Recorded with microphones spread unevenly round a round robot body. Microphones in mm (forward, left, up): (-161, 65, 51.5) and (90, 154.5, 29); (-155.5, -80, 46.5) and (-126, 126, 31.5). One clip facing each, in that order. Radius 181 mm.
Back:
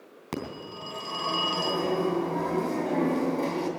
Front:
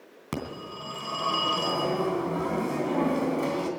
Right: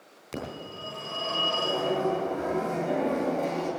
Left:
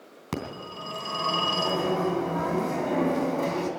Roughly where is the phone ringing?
Left.